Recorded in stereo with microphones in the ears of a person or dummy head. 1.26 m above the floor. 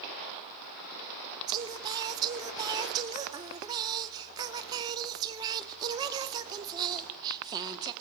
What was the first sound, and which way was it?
Singing, 25° right (ahead or behind).